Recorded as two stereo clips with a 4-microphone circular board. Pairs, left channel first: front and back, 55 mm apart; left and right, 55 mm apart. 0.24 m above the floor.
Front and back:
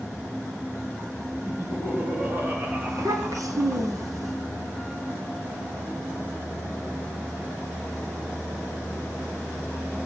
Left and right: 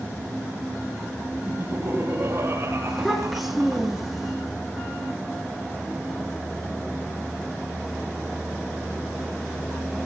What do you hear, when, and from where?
1.5 s laughter: 135° right, 9 m; by 3.9 s 115° right, 7.5 m
2.9 s a child speaking: straight behind, 7 m